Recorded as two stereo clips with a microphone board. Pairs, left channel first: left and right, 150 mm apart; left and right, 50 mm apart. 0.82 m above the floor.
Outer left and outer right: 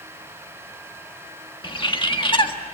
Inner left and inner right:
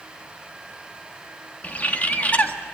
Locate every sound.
1.6 s a bird: 35° left (ahead or behind), 1.7 m